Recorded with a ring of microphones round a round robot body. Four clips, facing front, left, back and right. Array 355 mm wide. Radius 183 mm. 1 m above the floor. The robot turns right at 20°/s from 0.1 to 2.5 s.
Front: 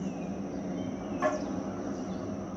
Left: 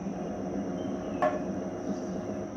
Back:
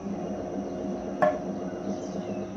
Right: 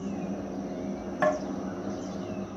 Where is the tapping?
165° right, 1.3 m; by 1.4 s 160° right, 1.3 m.